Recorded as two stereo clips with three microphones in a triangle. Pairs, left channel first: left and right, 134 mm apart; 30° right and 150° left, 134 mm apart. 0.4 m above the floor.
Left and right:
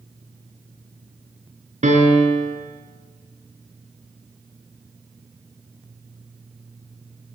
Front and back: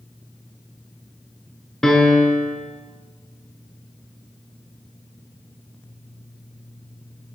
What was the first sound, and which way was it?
A piano, 115° right.